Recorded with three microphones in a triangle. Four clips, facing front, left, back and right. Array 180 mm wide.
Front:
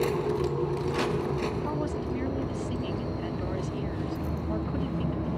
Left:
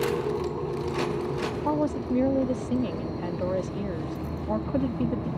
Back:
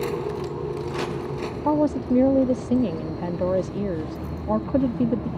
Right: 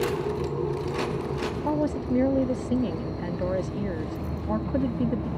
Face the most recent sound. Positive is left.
turn(degrees=-175)